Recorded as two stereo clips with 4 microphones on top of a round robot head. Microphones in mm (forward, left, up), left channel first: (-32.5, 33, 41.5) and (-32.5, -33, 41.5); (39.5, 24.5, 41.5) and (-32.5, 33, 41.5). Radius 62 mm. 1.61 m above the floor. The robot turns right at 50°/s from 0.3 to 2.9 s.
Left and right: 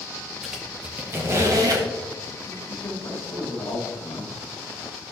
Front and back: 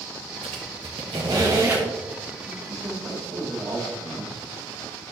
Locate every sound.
0.4 s a squeak: straight behind, 1.1 m; by 1.9 s 110° right, 1.1 m
2.5 s a man speaking: 90° left, 3.5 m; by 4.4 s 110° left, 3.5 m